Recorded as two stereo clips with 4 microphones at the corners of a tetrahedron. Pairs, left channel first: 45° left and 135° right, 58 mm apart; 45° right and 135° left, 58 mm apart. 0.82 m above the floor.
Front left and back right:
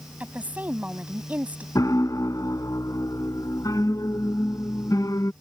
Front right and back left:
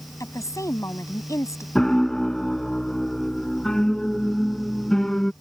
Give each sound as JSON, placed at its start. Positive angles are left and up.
{"t": 0.2, "sound": "a woman speaking", "azimuth_deg": -70}
{"t": 1.8, "sound": "a piano", "azimuth_deg": 35}